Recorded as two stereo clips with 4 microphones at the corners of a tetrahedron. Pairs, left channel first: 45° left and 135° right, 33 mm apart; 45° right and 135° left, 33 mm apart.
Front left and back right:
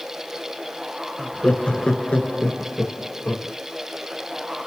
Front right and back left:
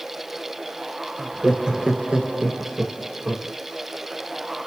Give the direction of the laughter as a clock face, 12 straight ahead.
10 o'clock.